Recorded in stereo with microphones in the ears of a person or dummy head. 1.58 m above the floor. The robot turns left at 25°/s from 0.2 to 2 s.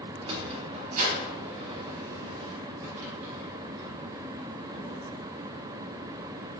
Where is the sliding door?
30° right (ahead or behind), 4 m; by 5.0 s 70° right (ahead or behind), 4 m.